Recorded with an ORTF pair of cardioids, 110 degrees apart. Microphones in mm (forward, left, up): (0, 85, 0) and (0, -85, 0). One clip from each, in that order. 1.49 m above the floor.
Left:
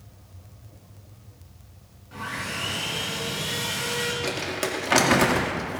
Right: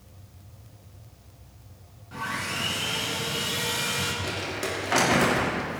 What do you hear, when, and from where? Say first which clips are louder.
2.1 s sawing: right 1 dB; 10° right, 5 m
4.2 s crumpling: left 2 dB; 35° left, 1.9 m